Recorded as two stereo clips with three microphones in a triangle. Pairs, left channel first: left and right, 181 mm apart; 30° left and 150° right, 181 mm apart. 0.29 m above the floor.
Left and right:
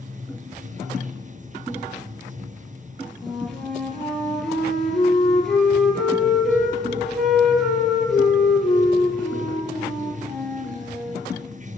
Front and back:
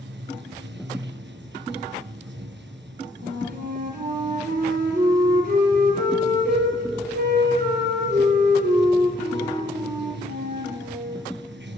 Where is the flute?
Straight behind, 4.5 m.